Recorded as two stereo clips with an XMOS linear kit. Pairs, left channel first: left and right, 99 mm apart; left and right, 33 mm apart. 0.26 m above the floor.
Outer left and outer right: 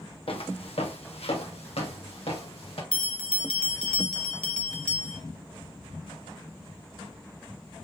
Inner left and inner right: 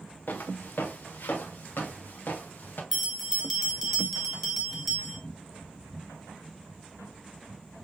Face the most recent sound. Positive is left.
turn(degrees=10)  # may be behind; listen again after turning